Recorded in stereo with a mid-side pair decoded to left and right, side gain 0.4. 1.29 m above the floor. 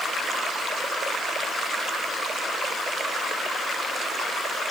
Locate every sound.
Only background noise.